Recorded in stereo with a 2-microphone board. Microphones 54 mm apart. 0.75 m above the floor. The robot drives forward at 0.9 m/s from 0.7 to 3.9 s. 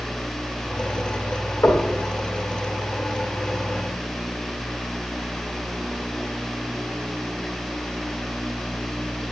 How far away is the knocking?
About 1.5 m.